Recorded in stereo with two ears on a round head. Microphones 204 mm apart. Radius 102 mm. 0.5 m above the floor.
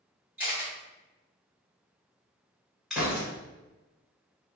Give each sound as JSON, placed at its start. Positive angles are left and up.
{"t": 0.4, "sound": "a camera shutter", "side_deg": -10, "distance_m": 1.6}
{"t": 2.9, "sound": "a gunshot", "side_deg": 0, "distance_m": 1.1}